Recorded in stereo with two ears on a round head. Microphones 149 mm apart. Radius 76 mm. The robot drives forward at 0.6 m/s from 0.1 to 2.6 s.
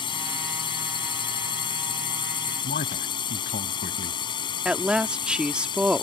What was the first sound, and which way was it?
A drone, 30° left (ahead or behind).